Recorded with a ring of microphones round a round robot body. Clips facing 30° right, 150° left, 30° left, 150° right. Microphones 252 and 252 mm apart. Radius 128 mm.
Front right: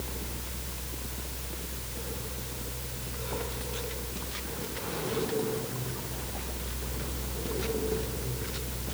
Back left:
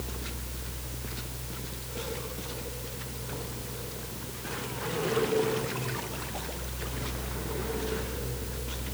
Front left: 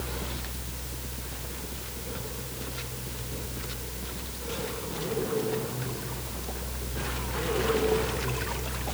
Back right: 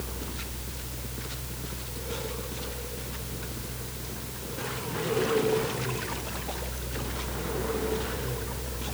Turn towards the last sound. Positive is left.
No sound to turn to.